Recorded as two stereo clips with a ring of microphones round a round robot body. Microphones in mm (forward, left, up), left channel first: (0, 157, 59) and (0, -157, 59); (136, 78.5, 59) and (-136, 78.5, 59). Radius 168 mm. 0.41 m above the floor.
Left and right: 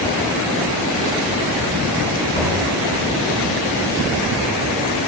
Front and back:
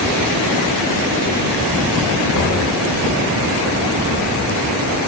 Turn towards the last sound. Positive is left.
turn(degrees=15)